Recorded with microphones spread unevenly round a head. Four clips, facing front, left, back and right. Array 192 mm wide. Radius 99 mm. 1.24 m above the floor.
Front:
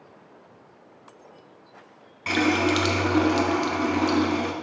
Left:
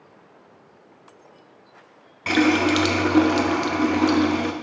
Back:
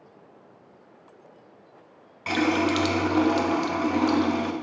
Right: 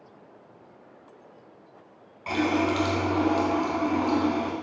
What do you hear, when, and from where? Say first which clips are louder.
2.3 s a running tap: left 6 dB, front 1 dB; 90° left, 1.2 m